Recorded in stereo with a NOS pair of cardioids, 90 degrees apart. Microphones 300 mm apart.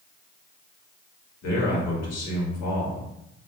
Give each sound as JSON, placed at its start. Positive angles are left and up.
{"t": 1.4, "sound": "a man speaking", "azimuth_deg": 60, "distance_m": 1.5}